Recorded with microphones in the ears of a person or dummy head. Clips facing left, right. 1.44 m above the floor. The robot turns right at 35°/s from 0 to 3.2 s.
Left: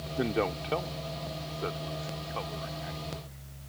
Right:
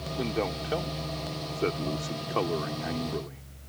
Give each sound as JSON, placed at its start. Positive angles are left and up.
{"t": 0.2, "sound": "a man speaking", "azimuth_deg": 170}